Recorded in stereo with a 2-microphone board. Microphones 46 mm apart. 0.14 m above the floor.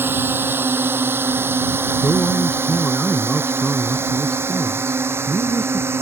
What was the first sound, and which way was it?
A drone, 55° right (ahead or behind).